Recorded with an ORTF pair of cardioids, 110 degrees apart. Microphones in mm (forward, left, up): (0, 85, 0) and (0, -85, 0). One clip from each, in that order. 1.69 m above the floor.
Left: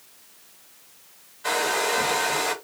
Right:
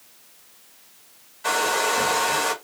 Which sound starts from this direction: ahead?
A hair dryer, at 1.4 s.